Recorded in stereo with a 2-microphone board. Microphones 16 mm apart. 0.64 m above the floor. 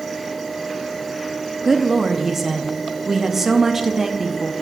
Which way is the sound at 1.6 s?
20° right (ahead or behind).